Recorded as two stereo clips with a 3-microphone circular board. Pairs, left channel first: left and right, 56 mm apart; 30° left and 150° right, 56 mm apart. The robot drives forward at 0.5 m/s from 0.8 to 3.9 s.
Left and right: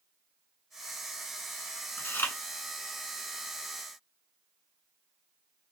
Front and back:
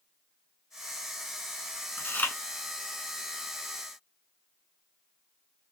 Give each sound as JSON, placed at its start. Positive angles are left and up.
{"t": 2.0, "sound": "chewing", "azimuth_deg": 55, "distance_m": 0.8}